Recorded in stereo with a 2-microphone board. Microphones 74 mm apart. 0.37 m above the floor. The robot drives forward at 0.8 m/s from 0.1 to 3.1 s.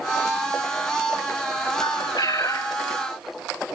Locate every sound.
1.8 s a bird: 85° left, 0.7 m; by 2.8 s 40° left (ahead or behind), 1.1 m